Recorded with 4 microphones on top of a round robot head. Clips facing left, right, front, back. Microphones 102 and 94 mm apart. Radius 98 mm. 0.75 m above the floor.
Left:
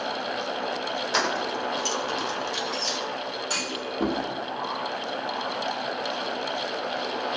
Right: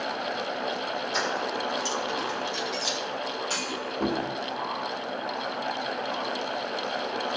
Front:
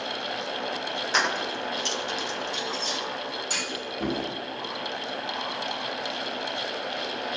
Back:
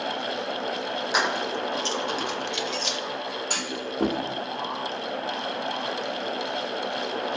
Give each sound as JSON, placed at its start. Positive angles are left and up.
{"t": 1.1, "sound": "keys jangling", "azimuth_deg": 105, "distance_m": 1.1}
{"t": 3.5, "sound": "a clunk", "azimuth_deg": 165, "distance_m": 2.0}